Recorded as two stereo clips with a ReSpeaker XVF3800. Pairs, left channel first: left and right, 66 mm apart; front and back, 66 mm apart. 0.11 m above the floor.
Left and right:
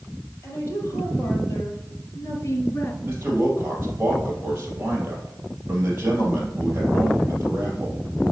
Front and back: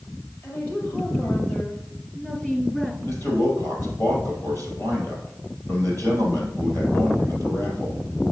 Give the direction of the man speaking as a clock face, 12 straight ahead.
1 o'clock.